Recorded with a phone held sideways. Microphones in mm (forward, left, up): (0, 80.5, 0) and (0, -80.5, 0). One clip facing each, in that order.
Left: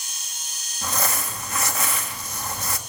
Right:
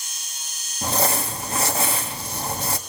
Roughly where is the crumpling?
Right.